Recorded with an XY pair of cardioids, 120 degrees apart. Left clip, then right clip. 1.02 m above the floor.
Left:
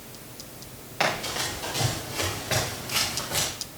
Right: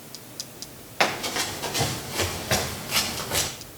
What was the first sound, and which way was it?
Running footsteps, 25° right.